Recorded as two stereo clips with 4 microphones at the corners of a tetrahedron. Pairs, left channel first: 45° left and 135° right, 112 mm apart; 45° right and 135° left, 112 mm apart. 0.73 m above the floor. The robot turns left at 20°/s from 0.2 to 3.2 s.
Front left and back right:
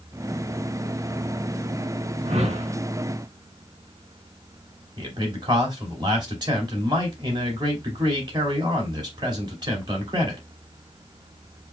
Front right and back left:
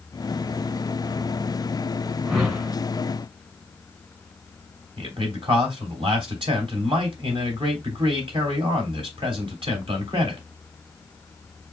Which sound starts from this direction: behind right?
A whoosh, at 2.2 s.